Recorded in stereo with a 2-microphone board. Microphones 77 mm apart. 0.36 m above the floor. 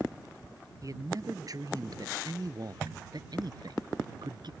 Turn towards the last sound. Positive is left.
turn(degrees=-70)  # may be behind; listen again after turning